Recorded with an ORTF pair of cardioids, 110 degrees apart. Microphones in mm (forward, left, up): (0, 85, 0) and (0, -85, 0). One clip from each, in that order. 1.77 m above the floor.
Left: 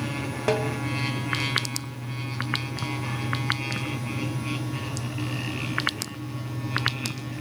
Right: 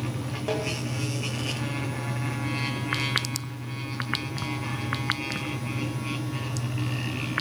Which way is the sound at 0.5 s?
45° left.